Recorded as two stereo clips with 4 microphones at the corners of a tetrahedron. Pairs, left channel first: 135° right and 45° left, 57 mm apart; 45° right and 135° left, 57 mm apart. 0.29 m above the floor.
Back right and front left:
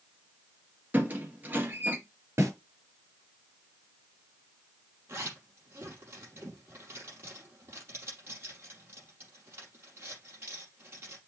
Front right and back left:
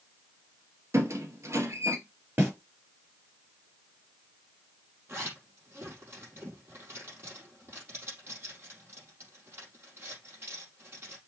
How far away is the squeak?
About 2 m.